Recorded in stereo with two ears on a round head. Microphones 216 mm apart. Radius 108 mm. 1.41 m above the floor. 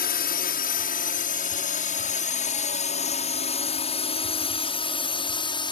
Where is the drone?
40° left (ahead or behind); by 5.7 s 20° left (ahead or behind).